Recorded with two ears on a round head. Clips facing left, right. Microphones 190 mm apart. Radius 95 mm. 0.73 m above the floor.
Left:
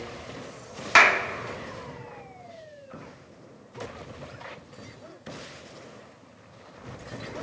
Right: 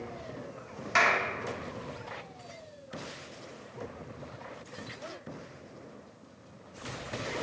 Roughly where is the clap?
Left.